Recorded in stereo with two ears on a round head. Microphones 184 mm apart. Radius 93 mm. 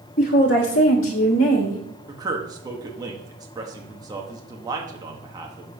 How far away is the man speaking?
About 1.3 m.